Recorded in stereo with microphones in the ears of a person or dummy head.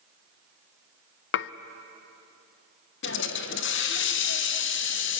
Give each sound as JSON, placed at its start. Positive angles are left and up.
{"t": 1.3, "sound": "dishes clattering", "side_deg": 65, "distance_m": 0.6}
{"t": 3.0, "sound": "a hiss", "side_deg": 60, "distance_m": 1.3}